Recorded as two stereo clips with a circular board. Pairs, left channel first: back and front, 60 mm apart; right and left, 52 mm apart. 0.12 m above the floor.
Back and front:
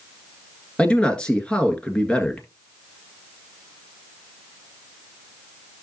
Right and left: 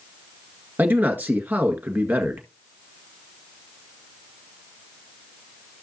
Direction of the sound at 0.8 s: 115° left.